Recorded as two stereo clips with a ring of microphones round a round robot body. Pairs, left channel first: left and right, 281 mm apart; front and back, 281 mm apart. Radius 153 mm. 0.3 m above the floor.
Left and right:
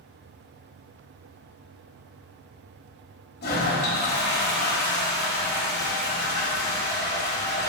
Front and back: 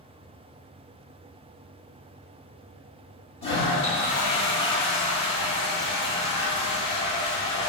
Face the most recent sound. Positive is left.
turn(degrees=60)